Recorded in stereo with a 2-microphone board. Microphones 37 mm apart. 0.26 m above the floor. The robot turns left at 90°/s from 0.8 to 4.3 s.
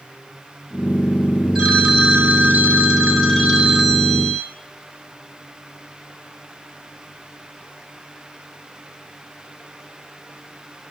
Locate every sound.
1.6 s a phone ringing: 35° right, 1.4 m; by 4.5 s 80° left, 1.4 m